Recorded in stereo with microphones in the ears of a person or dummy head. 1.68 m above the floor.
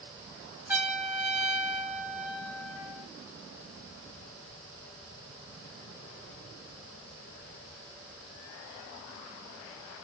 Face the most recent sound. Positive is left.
turn(degrees=-10)  # may be behind; listen again after turning